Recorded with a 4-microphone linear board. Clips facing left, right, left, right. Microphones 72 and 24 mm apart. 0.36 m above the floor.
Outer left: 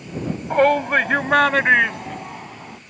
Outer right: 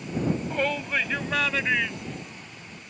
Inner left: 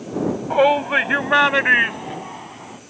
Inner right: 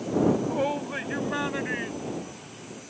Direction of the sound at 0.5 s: 55° left (ahead or behind).